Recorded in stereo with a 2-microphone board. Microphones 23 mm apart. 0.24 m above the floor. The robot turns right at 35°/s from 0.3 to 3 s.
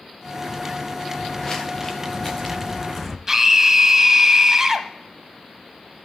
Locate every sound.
1.1 s footsteps: 40° left (ahead or behind), 2.5 m; by 3.2 s 10° left (ahead or behind), 0.9 m
3.3 s a scream: 20° right (ahead or behind), 1.3 m